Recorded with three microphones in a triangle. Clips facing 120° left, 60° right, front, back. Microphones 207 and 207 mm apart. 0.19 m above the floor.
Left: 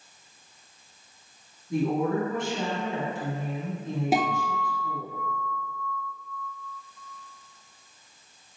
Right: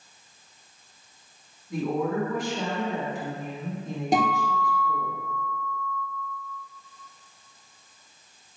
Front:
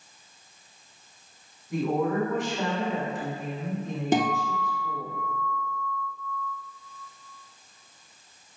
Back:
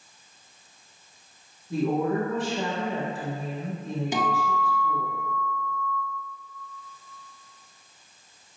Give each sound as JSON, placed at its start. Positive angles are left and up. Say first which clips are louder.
{"t": 1.7, "sound": "a woman speaking", "louder": "left 2 dB, back 1 dB", "azimuth_deg": 160, "distance_m": 1.4}
{"t": 4.1, "sound": "a guitar", "louder": "right 3 dB, front 5 dB", "azimuth_deg": 35, "distance_m": 0.7}